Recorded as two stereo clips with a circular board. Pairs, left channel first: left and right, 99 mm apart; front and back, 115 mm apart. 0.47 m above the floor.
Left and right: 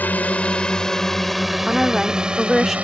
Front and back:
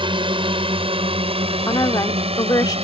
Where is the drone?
160° left; by 2.9 s 165° right.